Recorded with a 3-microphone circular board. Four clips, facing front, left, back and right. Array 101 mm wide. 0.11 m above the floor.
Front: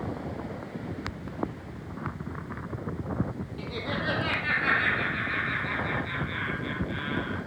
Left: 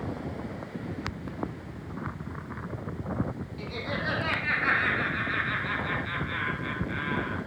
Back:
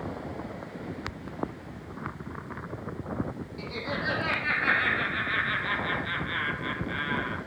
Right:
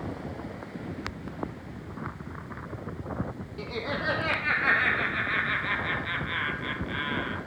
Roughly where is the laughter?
Right.